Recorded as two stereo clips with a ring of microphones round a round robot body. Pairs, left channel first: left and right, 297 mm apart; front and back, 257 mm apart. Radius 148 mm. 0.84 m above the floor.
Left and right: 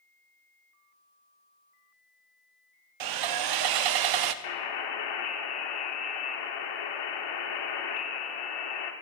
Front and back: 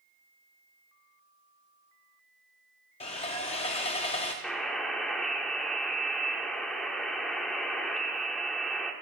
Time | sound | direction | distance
3.0 | sawing | 70° right | 0.6 m
4.4 | a buzzer | 90° left | 1.5 m